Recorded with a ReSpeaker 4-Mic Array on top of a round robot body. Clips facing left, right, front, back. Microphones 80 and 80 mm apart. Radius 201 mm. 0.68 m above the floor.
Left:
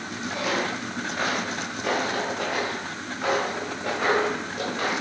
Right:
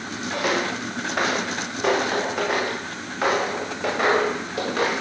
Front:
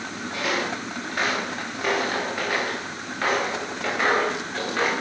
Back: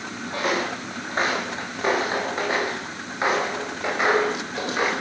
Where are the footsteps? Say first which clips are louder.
Right 3 dB, back 2 dB; 125° right, 10 m; by 4.9 s 100° right, 12 m.